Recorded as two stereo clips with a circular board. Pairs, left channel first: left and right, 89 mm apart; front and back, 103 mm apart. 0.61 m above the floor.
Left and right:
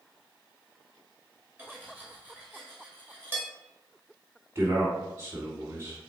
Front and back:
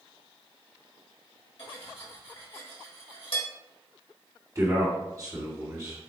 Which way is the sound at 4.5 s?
135° right.